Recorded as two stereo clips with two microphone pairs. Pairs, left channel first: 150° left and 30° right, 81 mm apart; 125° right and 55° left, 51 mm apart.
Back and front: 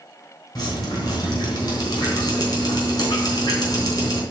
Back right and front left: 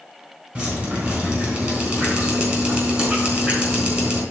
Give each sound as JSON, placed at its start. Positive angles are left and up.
{"t": 0.6, "sound": "dripping", "azimuth_deg": 115, "distance_m": 4.0}